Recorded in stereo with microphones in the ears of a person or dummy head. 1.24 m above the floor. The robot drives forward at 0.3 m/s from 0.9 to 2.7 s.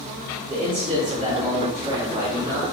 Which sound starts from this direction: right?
A man speaking, at 0.5 s.